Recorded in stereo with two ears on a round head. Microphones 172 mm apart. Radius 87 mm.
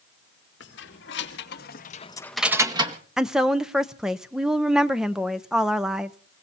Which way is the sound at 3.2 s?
5° right (ahead or behind).